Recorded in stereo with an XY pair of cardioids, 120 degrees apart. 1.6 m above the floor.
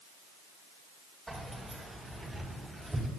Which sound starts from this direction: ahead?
Keys jangling, at 1.3 s.